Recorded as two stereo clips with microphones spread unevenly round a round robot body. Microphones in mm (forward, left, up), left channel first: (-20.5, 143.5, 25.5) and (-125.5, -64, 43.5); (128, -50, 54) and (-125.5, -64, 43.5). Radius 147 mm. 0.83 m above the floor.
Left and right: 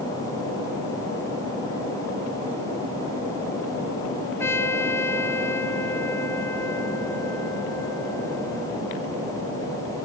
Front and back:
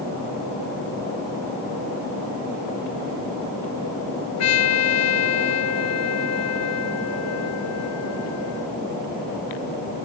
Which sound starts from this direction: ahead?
A trumpet, at 4.4 s.